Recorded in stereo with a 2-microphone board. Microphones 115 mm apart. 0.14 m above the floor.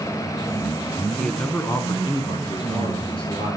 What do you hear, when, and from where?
1.2 s a man speaking: 10° left (ahead or behind), 1.1 m; by 3.6 s 50° left (ahead or behind), 2.5 m